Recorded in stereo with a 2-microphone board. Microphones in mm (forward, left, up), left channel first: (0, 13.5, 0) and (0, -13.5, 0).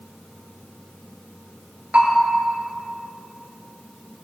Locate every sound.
1.9 s a bell: 45° right (ahead or behind), 3 m